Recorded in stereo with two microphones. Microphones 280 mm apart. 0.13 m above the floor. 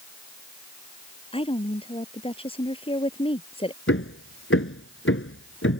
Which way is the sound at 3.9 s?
50° left (ahead or behind).